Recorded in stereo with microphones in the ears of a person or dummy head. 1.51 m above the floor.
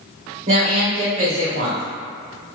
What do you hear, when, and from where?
0.5 s a woman speaking: 40° right (ahead or behind), 1.0 m